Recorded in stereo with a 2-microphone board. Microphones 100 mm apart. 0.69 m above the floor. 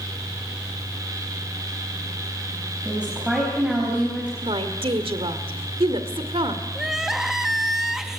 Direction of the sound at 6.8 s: 5° right (ahead or behind).